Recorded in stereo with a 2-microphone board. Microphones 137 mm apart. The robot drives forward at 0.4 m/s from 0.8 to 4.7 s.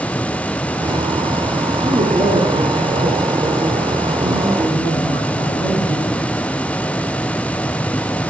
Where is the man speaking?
40° right (ahead or behind), 3 m; by 6.3 s 30° right (ahead or behind), 4 m.